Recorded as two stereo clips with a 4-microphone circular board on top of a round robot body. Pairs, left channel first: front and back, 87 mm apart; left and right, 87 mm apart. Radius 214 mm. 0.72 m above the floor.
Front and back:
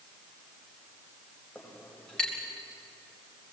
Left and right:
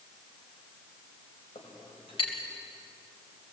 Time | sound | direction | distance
1.6 | a clink | 80° left | 4 m